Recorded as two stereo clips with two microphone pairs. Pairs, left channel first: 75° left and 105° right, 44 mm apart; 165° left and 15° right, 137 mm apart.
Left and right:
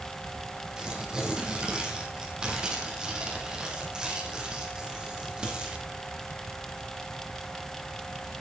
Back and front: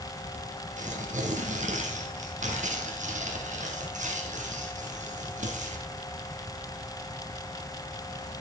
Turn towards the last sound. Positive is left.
turn(degrees=-35)